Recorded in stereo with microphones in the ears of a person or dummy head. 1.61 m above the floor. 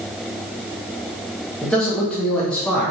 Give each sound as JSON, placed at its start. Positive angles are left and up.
{"t": 1.6, "sound": "a man speaking", "side_deg": 5, "distance_m": 1.0}